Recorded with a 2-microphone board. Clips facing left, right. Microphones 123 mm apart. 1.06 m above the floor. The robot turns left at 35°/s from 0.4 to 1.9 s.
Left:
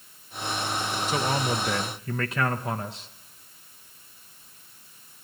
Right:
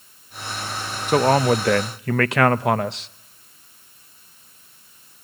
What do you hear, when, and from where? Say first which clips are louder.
1.1 s a man speaking: right 12 dB; 55° right (ahead or behind), 0.7 m; by 3.1 s 80° right, 0.7 m